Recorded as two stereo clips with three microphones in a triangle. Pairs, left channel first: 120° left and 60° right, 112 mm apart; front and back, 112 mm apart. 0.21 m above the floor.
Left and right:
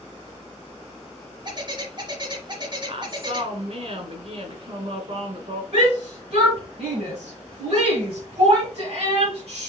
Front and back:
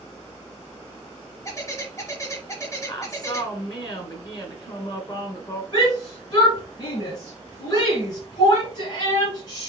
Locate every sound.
1.4 s a bird: 50° right, 1.1 m
2.9 s a woman speaking: 45° right, 1.9 m
5.7 s a shout: 45° right, 3 m